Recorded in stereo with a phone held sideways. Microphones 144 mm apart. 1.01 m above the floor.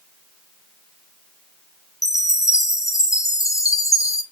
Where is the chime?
20° left (ahead or behind), 0.9 m.